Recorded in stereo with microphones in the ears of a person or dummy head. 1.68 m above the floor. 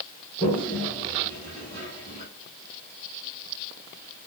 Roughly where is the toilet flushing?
Centre.